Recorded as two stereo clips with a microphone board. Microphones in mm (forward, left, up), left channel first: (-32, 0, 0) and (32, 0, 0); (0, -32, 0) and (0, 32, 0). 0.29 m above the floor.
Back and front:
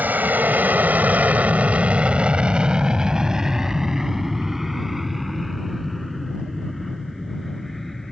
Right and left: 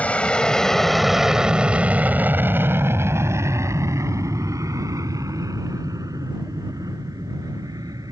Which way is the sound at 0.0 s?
40° right.